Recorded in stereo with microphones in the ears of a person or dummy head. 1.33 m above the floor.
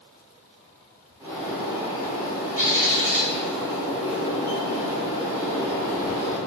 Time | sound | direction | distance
1.2 | a bird | 5° right (ahead or behind) | 0.5 m